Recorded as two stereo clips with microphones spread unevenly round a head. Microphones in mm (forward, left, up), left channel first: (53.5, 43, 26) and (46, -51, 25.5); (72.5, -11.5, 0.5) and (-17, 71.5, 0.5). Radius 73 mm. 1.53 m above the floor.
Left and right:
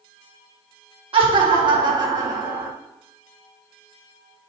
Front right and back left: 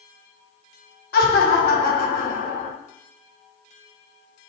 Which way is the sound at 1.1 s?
70° right.